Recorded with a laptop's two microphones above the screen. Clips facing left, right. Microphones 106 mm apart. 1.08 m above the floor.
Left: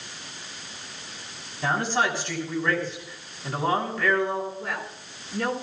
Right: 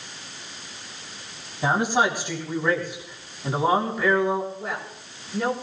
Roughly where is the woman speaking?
Centre.